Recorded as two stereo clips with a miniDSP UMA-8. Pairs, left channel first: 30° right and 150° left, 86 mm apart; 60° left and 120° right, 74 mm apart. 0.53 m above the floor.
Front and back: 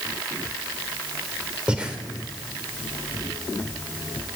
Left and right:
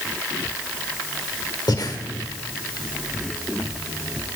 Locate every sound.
1.7 s breathing: 75° left, 1.1 m